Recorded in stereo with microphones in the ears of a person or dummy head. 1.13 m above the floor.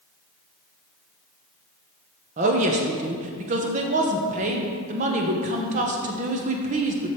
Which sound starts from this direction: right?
A woman speaking, at 2.4 s.